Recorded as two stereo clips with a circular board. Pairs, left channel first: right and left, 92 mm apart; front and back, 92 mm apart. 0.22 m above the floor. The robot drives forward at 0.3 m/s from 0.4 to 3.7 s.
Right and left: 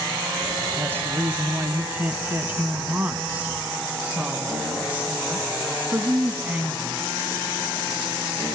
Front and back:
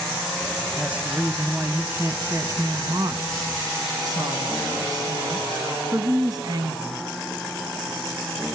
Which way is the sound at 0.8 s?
115° left.